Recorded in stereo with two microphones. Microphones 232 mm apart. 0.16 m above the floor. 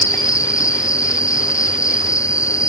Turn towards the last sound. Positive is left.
turn(degrees=15)  # may be behind; listen again after turning